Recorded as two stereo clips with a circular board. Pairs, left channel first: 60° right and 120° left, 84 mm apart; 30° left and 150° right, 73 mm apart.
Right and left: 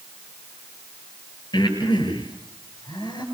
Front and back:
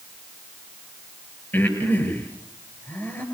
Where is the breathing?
30° right, 7.5 m.